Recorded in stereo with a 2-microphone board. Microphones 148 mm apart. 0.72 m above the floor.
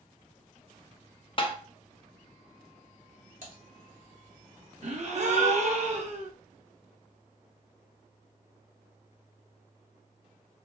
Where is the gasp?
50° right (ahead or behind), 0.6 m.